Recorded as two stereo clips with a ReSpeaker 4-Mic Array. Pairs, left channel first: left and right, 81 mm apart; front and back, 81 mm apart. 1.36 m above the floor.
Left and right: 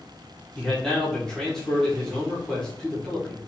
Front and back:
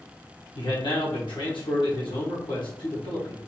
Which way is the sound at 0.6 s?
10° left.